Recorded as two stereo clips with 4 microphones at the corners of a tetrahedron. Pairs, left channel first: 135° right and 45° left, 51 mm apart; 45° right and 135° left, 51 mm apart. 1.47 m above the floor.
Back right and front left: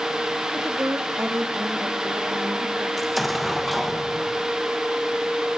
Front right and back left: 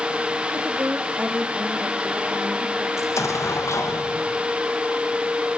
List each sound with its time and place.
0.5 s a woman speaking: 85° left, 3 m; by 2.9 s 70° left, 4 m
3.0 s an explosion: 40° right, 2 m